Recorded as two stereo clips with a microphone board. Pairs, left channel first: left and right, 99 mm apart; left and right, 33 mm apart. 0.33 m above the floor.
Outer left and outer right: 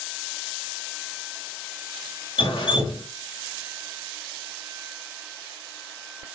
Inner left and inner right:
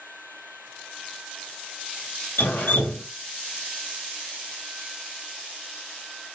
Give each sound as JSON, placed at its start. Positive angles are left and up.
{"t": 2.4, "sound": "dripping", "side_deg": 55, "distance_m": 0.8}